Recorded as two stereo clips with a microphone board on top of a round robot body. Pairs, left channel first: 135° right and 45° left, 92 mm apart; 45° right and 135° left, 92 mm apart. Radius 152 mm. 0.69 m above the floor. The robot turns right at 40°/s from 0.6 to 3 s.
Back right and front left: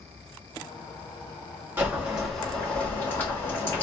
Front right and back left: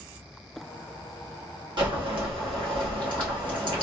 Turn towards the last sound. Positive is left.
turn(degrees=160)